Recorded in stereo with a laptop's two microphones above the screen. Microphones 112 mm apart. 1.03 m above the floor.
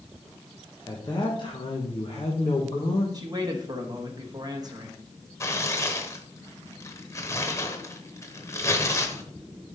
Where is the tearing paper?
25° left (ahead or behind), 0.8 m.